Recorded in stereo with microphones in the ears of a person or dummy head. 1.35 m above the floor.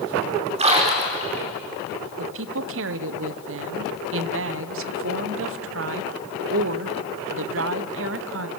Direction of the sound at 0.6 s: 30° right (ahead or behind).